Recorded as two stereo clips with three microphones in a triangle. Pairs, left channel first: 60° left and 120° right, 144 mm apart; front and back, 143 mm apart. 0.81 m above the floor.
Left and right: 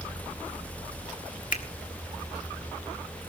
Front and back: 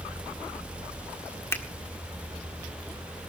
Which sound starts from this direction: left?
A finger snap, at 1.5 s.